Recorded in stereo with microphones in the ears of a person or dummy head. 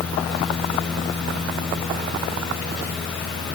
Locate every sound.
0.0 s a fan: 5° left (ahead or behind), 7.5 m